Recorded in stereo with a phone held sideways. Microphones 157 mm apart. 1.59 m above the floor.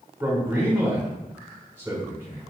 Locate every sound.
0.2 s a man speaking: 15° right (ahead or behind), 1.4 m